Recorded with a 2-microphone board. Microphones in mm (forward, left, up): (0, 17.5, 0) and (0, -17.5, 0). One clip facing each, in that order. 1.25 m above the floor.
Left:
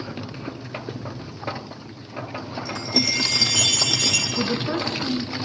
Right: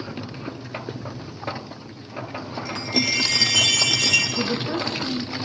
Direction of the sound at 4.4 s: 50° left (ahead or behind).